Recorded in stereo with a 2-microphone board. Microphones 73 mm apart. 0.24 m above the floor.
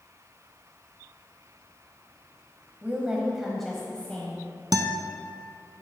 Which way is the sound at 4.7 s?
70° right (ahead or behind).